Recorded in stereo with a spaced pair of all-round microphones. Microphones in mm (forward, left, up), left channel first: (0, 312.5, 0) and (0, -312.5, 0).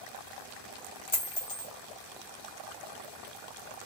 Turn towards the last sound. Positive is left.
turn(degrees=30)  # may be behind; listen again after turning